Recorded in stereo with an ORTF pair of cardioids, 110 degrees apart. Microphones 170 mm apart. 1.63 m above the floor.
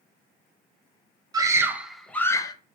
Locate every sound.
1.3 s a scream: 25° right, 0.9 m; by 2.5 s 25° left, 0.7 m